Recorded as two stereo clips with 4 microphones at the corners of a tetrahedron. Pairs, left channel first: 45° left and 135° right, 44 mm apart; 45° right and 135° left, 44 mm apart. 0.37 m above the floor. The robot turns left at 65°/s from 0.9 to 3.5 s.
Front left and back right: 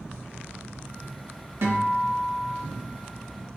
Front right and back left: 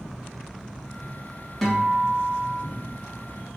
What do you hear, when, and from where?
1.6 s a guitar: 130° right, 1.1 m; by 2.6 s 165° left, 1.1 m